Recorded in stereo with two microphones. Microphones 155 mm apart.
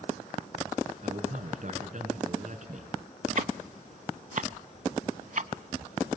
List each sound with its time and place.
1.0 s a man speaking: 55° right (ahead or behind), 5 m
3.4 s ticking: 60° right (ahead or behind), 0.7 m